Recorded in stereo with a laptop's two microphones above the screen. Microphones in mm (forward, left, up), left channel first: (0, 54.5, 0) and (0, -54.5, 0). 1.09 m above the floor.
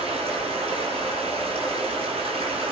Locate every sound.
0.0 s running water: 60° right (ahead or behind), 4 m